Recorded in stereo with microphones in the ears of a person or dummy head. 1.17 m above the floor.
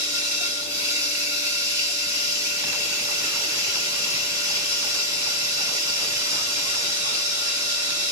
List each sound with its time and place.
0.0 s running water: 20° right (ahead or behind), 1.4 m